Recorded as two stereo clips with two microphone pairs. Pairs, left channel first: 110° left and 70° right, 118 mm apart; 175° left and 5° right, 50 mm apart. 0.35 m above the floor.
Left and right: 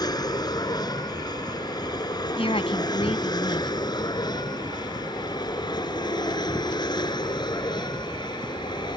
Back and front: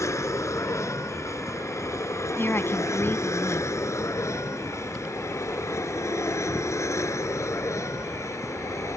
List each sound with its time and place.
0.0 s an aircraft: 165° left; by 9.0 s 160° left
2.4 s a woman speaking: 140° left